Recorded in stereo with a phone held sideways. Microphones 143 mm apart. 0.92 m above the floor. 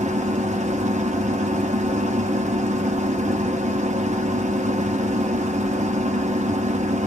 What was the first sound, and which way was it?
A machine running, 55° right (ahead or behind).